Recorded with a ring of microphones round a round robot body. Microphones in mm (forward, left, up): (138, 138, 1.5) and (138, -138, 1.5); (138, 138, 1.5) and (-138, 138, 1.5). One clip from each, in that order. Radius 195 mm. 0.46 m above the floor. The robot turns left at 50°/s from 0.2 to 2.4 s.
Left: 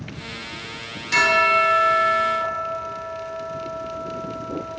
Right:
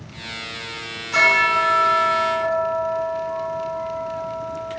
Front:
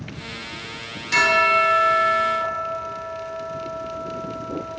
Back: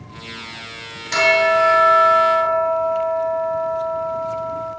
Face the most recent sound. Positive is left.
turn(degrees=30)